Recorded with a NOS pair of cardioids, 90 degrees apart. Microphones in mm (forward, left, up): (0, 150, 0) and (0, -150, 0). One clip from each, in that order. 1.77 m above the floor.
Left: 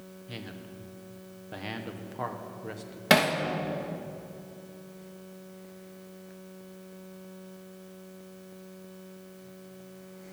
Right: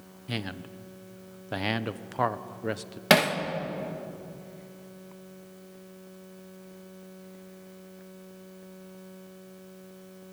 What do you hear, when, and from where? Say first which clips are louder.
0.3 s a man speaking: right 8 dB; 55° right, 1.4 m
3.1 s hammering: right 1 dB; 25° right, 2.5 m